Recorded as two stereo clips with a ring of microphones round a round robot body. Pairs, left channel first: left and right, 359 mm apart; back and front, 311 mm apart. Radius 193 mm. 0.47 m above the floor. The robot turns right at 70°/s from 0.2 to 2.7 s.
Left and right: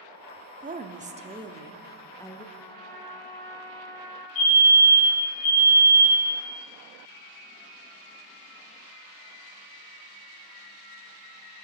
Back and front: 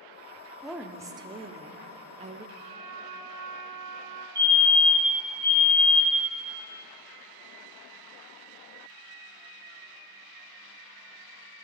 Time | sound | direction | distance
0.6 | a woman speaking | 95° right | 0.7 m
2.5 | a trumpet | 5° right | 1.6 m
4.3 | a fire alarm | 75° left | 4 m